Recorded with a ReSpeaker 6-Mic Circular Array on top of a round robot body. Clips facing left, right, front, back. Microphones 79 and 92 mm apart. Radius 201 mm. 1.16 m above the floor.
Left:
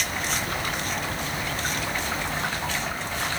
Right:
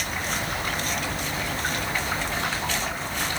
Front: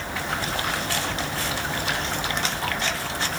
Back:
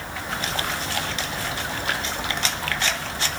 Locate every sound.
Only background noise.